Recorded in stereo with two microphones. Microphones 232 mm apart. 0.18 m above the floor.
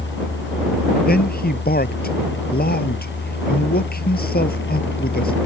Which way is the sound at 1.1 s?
40° left (ahead or behind).